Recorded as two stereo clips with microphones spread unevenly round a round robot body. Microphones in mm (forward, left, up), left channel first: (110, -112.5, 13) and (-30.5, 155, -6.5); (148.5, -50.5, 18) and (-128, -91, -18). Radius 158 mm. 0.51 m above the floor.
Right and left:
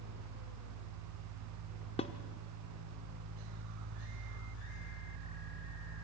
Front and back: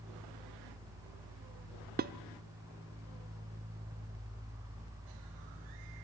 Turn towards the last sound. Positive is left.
turn(degrees=-135)